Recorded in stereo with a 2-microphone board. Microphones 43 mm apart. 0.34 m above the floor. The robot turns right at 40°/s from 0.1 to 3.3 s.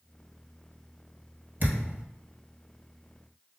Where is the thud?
55° right (ahead or behind), 1.4 m; by 2.0 s 35° right (ahead or behind), 1.4 m.